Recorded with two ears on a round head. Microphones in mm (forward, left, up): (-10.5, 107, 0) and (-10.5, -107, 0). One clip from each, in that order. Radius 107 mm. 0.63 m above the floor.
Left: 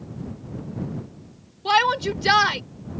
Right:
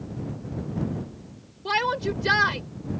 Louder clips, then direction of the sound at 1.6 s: Left 5 dB; 45° left (ahead or behind).